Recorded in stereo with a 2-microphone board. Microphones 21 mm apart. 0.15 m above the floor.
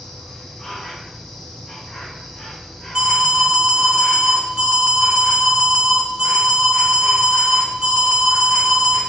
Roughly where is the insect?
Left.